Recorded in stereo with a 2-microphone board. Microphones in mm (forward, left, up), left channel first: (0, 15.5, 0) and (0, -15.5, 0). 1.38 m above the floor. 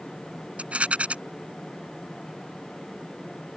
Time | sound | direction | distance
0.6 | a rattle | 40° right (ahead or behind) | ?